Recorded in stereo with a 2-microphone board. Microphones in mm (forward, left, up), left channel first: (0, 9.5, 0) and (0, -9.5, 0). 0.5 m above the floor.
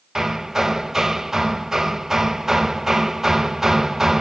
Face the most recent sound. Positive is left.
turn(degrees=-25)  # may be behind; listen again after turning